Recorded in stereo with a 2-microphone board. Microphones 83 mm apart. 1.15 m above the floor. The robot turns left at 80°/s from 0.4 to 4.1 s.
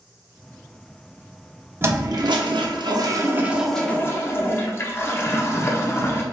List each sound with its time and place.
1.8 s a toilet flushing: 30° right, 0.7 m; by 6.2 s 150° left, 0.7 m